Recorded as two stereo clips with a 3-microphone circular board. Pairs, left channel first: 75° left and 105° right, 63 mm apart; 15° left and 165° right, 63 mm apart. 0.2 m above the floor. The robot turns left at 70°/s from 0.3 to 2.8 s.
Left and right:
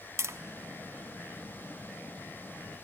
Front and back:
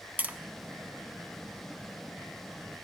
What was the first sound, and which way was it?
Tapping, 110° right.